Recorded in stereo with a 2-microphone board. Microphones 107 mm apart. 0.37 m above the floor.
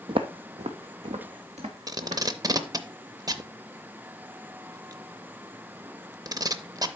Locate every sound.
0.1 s footsteps: 55° right (ahead or behind), 0.7 m; by 2.7 s 75° right (ahead or behind), 2.5 m
1.9 s tape being pulled: 35° right (ahead or behind), 0.6 m